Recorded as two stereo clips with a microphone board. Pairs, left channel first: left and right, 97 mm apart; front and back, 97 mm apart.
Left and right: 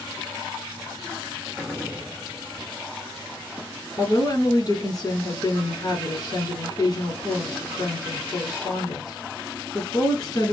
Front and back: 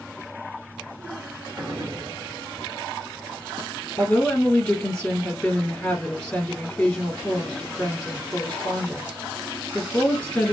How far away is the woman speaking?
About 1.5 m.